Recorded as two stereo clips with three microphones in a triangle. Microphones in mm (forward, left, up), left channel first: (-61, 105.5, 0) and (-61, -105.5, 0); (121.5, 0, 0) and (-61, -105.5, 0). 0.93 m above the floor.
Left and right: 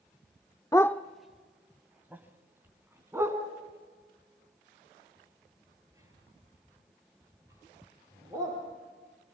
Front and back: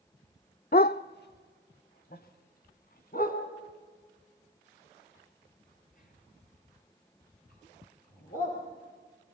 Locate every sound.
0.7 s a dog barking: 25° left, 0.6 m; by 8.6 s 15° right, 9.5 m